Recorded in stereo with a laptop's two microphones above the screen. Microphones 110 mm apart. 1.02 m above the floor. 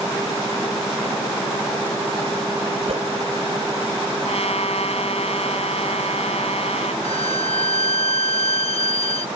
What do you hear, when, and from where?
2.9 s a whoosh: 70° right (ahead or behind)
4.2 s a trumpet: 70° left (ahead or behind)
7.0 s a violin: 70° left (ahead or behind)